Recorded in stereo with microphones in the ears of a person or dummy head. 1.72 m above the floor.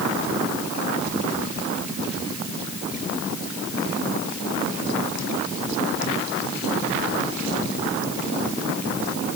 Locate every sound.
Only background noise.